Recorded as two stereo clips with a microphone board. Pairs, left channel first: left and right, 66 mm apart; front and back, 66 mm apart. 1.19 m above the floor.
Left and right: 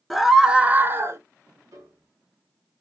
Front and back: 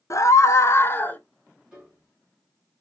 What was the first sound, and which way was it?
A scream, straight ahead.